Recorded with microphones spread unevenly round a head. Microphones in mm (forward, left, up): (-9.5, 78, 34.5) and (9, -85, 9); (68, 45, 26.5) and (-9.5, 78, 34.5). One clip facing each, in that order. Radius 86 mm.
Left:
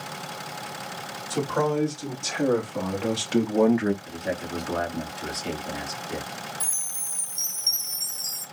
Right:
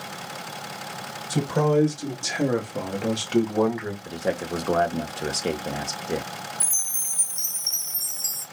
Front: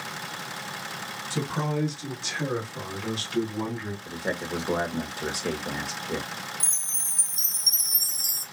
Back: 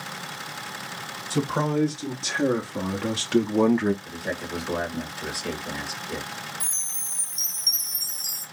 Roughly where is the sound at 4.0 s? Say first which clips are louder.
Right 4 dB, front 1 dB; right.